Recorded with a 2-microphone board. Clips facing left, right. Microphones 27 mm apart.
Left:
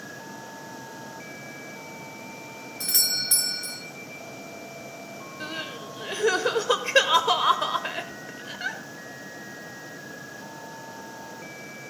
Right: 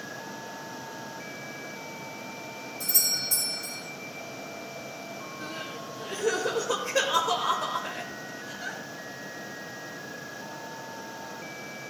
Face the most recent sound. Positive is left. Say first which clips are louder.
# left 5 dB
turn(degrees=50)  # may be behind; listen again after turning